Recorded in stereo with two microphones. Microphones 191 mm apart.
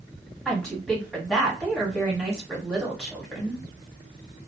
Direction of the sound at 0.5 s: 5° left (ahead or behind).